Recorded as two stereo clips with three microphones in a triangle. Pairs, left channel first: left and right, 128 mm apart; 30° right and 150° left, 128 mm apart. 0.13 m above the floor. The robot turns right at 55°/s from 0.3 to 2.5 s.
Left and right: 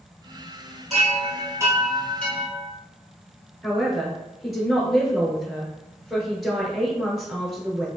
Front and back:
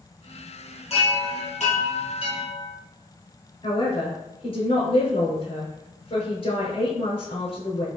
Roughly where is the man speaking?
Ahead.